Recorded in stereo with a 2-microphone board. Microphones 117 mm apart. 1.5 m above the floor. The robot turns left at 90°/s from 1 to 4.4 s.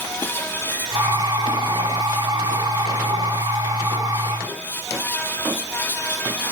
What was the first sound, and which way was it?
Only background noise.